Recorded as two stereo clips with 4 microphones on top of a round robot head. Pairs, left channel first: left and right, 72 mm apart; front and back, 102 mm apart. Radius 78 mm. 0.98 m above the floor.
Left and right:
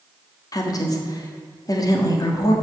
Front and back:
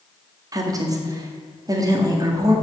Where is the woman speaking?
125° left, 1.9 m.